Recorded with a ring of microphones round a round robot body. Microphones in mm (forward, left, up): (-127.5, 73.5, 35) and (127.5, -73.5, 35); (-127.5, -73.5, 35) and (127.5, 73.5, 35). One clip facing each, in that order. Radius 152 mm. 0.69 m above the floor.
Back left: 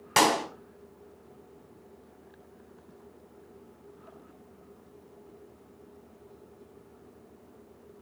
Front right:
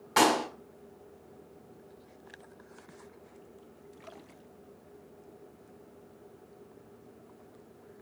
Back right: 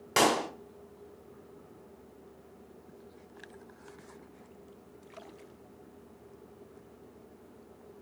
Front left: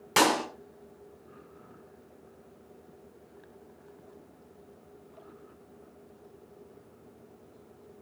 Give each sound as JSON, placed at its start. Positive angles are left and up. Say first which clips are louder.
{"t": 0.2, "sound": "a clap", "louder": "even, front left 1 dB", "azimuth_deg": 110, "distance_m": 5.5}